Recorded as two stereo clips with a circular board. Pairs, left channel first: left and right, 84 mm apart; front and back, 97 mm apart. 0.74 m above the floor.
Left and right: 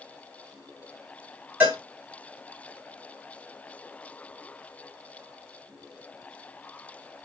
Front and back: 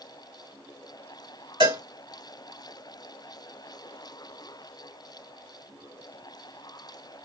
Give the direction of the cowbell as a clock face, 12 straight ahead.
5 o'clock.